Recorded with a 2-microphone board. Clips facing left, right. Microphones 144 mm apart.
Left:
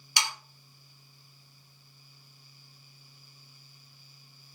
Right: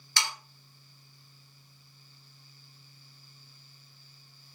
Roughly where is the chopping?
No chopping in this recording.